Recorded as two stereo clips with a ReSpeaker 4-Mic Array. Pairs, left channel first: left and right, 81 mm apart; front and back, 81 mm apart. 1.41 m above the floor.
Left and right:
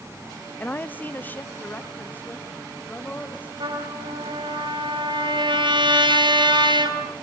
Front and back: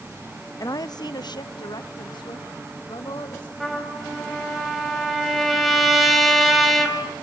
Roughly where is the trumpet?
Right.